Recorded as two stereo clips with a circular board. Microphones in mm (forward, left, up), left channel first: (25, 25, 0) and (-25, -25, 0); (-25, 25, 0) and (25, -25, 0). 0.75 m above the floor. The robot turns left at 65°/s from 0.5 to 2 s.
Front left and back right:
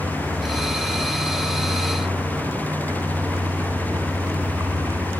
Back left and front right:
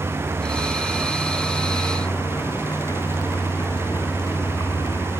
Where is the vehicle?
90° right; by 5.2 s 175° left.